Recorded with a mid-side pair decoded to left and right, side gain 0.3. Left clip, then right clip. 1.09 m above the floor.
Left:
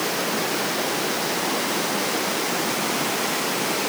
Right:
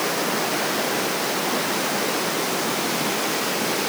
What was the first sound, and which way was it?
Only background noise.